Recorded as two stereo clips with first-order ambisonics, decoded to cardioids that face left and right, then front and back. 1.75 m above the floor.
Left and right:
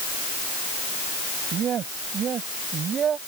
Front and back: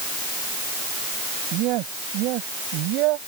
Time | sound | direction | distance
1.5 | a man speaking | 145° right | ?